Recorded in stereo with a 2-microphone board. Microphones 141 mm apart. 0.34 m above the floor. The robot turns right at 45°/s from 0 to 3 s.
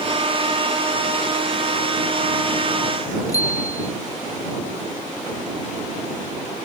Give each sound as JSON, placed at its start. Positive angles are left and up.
{"t": 3.3, "sound": "a bicycle bell", "side_deg": 25}